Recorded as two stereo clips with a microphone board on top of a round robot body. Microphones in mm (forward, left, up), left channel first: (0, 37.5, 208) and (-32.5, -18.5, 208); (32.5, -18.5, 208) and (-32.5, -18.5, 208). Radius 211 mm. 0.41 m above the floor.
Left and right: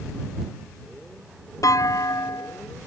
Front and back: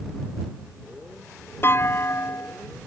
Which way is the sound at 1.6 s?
45° left.